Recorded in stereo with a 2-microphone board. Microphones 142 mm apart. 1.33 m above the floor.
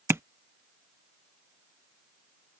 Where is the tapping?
20° right (ahead or behind).